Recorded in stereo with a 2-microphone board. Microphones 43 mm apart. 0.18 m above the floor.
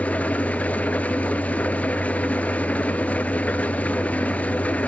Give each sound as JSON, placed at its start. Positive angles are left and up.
{"t": 0.0, "sound": "an engine running", "side_deg": 30, "distance_m": 1.1}